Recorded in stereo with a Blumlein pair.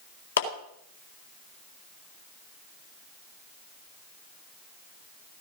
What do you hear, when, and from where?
0.4 s a clap: 65° left, 3.5 m